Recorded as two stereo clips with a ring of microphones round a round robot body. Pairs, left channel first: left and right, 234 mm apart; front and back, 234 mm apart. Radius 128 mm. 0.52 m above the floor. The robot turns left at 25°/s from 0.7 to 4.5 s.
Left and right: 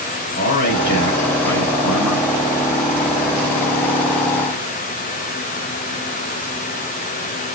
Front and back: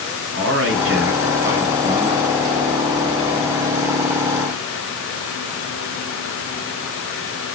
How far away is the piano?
No piano in this recording.